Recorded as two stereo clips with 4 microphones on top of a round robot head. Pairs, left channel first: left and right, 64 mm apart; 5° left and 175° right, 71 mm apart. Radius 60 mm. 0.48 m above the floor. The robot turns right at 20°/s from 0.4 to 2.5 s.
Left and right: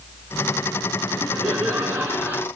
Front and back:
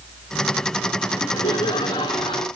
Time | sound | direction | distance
1.1 | laughter | 55° right | 4.5 m